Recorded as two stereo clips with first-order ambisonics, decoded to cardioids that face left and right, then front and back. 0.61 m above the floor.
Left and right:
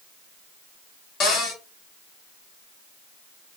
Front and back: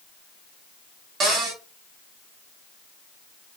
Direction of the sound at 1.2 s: 140° left.